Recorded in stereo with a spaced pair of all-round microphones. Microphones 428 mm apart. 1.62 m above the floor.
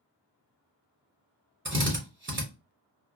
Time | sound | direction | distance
1.6 | a drill | 25° right (ahead or behind) | 1.0 m